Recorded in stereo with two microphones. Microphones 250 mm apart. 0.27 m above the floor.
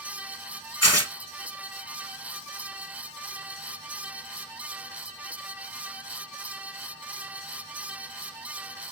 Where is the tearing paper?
75° left (ahead or behind), 0.9 m.